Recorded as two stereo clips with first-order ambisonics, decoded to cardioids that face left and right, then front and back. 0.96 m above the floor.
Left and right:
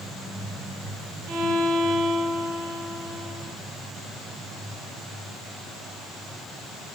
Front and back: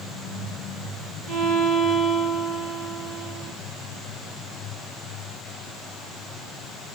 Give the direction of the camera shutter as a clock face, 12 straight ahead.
No camera shutter in this recording.